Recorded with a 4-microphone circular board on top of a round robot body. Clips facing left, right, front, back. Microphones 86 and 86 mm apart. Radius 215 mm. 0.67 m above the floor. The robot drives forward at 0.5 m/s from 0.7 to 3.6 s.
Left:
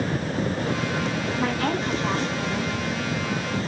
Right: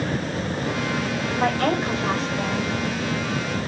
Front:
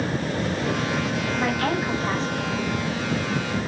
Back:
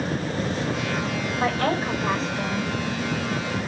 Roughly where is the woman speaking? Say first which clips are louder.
Right 5 dB, back 2 dB; behind right.